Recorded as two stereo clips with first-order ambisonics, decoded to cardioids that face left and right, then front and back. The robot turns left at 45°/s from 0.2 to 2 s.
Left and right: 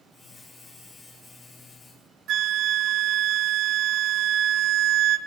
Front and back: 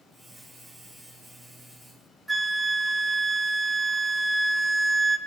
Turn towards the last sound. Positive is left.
turn(degrees=-95)